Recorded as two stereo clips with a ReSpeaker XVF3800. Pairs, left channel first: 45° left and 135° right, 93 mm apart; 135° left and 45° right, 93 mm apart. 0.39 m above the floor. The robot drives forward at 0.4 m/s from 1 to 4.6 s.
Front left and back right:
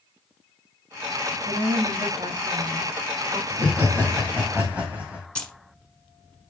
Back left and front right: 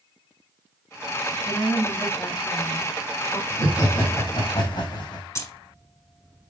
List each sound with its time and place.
1.4 s a woman speaking: 150° right, 2.0 m; by 3.4 s 160° right, 2.5 m
3.5 s laughter: 155° left, 2.5 m; by 5.2 s 160° left, 2.5 m
5.3 s keys jangling: 115° left, 0.9 m